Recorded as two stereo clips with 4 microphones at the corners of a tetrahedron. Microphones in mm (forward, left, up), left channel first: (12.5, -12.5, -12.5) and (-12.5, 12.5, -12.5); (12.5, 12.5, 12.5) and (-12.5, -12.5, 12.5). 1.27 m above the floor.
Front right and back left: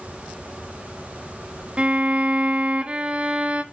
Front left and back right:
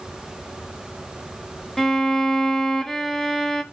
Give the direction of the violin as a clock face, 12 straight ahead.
8 o'clock.